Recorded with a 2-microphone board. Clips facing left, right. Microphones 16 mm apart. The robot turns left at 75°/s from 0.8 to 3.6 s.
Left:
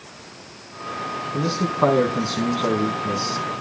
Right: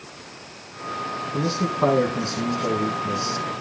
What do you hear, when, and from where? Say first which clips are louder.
1.3 s a man speaking: left 2 dB; 175° right, 4.5 m; by 3.6 s 15° left, 4.5 m